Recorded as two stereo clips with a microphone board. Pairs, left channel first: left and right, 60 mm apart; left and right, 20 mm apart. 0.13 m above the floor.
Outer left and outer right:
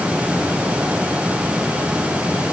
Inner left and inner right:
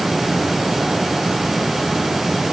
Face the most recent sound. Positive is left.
No sound to turn to.